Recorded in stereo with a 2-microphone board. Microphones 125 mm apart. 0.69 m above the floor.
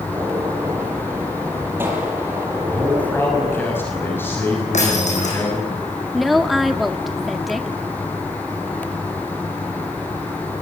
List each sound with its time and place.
0.1 s a gunshot: 20° right (ahead or behind), 6.5 m
2.7 s a man speaking: 15° left (ahead or behind), 5.5 m
4.7 s breaking glass: 70° left (ahead or behind), 8 m
6.1 s a woman speaking: centre (ahead or behind), 1.5 m